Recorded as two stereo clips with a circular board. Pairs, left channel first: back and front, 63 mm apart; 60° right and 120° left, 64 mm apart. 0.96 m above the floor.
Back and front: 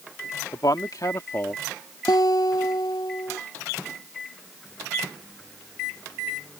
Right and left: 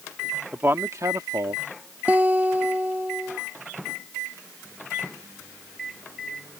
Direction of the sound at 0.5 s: Straight behind.